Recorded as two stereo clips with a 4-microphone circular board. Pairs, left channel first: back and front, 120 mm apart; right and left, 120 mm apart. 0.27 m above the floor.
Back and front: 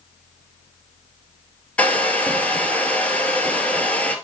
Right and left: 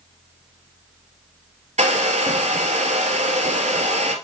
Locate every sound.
1.8 s a hair dryer: 100° left, 1.3 m